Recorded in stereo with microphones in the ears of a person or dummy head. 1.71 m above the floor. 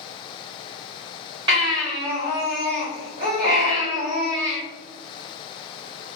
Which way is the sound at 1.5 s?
30° right (ahead or behind).